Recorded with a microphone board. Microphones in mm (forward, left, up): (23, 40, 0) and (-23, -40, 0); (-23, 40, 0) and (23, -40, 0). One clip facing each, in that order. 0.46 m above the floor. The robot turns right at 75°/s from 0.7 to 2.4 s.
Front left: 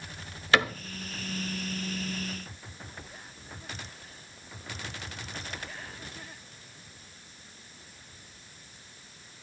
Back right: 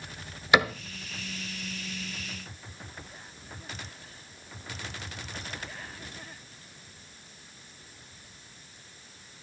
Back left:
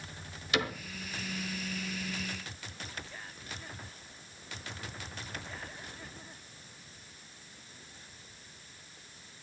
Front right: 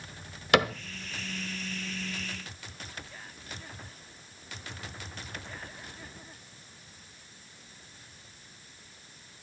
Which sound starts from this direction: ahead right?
A cupboard door, at 0.5 s.